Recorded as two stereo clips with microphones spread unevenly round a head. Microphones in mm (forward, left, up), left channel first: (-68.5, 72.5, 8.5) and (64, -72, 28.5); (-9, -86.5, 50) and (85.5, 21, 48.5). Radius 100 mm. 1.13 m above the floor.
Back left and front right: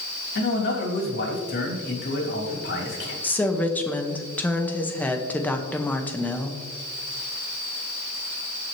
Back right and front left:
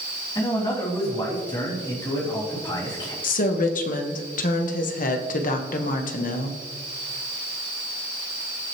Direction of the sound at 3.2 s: 150° right.